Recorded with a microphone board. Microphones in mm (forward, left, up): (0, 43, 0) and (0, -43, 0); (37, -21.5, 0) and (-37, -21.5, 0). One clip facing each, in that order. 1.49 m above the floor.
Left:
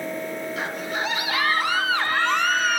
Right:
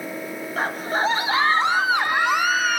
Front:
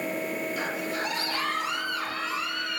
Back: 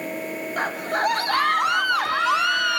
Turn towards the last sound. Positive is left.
turn(degrees=180)